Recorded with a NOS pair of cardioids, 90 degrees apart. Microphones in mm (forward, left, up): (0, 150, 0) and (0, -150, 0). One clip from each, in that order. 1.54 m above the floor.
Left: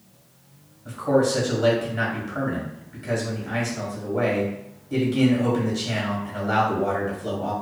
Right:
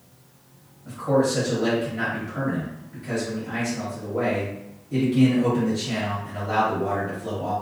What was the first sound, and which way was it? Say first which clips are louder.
A man speaking: left 1 dB; 30° left.